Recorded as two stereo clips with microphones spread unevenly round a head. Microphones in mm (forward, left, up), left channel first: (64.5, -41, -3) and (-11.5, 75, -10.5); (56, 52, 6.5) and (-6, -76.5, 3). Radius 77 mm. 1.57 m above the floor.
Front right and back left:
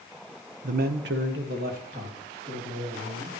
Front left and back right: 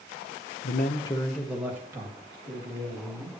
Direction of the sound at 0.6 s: 85° left.